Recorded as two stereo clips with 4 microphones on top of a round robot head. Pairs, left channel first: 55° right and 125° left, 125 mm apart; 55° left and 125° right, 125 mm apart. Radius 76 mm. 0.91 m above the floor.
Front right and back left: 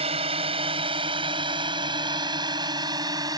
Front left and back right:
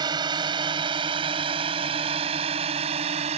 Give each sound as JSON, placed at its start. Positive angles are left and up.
{"t": 0.0, "sound": "a drone", "azimuth_deg": 175}